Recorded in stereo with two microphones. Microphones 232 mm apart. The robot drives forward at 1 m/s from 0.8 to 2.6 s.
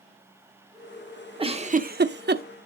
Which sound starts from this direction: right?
A giggle, at 1.4 s.